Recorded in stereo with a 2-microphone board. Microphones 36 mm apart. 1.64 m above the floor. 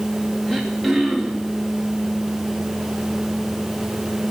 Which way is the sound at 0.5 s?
5° left (ahead or behind).